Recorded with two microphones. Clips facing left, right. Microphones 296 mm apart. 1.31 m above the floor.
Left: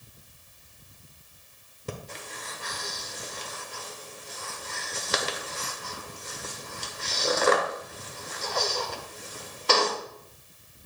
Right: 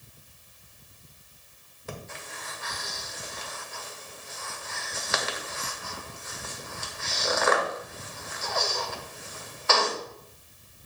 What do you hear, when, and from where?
1.9 s breathing: 40° left (ahead or behind), 1.2 m